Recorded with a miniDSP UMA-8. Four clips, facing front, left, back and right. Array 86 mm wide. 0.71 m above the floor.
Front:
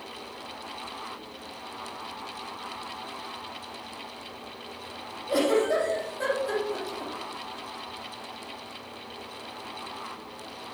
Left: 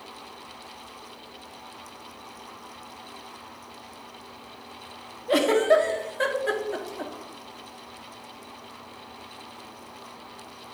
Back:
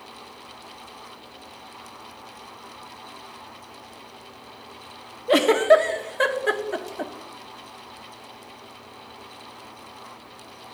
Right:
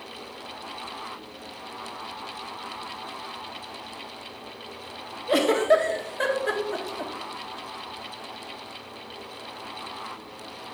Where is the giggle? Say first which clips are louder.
Even, back 7 dB; straight behind, 0.7 m.